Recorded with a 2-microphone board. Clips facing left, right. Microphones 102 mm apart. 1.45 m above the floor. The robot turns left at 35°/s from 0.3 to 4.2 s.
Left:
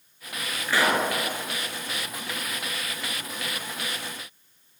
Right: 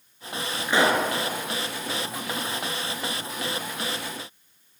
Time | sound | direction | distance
0.7 | a pop | 20° right (ahead or behind) | 4.5 m